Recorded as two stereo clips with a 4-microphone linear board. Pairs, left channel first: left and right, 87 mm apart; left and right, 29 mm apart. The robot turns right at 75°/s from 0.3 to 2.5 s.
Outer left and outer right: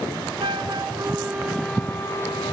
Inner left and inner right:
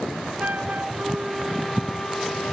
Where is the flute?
90° right, 1.9 m; by 2.5 s 70° left, 1.9 m.